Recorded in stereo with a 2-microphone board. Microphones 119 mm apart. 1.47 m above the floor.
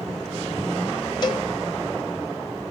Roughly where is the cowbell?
Left.